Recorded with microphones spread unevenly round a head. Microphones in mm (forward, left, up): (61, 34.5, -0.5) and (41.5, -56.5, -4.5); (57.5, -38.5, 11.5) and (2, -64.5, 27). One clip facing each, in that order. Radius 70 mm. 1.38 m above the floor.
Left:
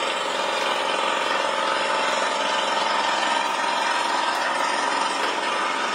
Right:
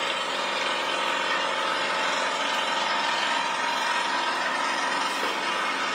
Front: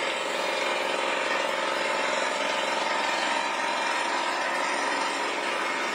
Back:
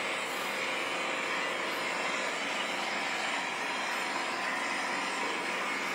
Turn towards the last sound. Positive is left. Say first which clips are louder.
# left 4 dB, front 6 dB
turn(degrees=35)